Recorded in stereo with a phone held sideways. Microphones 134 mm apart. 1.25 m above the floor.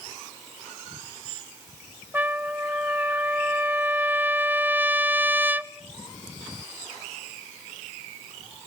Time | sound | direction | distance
2.1 | a trumpet | 10° right (ahead or behind) | 0.8 m